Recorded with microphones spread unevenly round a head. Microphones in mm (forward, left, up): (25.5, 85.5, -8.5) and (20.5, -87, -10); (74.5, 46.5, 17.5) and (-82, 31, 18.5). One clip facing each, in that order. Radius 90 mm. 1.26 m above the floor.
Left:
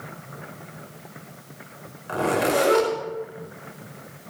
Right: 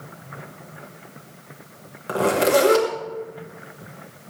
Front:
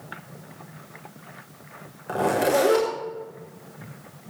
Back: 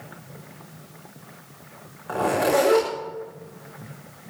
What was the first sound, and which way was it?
A zipper, 60° right.